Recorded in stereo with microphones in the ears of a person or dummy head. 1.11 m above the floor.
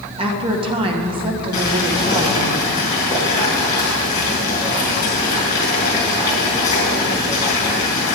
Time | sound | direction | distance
0.2 | a woman speaking | 25° right (ahead or behind) | 1.7 m
1.5 | boiling | 20° left (ahead or behind) | 4 m